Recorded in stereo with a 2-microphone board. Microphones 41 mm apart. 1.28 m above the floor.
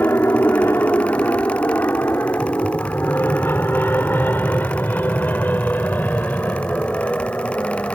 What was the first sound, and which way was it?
An aircraft, 70° left (ahead or behind).